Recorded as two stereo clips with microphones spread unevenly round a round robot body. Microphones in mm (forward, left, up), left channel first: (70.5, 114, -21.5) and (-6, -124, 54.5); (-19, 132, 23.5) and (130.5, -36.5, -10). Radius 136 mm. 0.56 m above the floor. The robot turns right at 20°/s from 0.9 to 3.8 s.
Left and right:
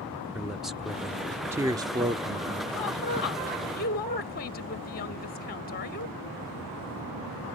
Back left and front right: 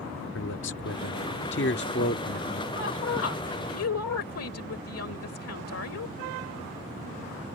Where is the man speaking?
145° left; by 2.6 s straight behind.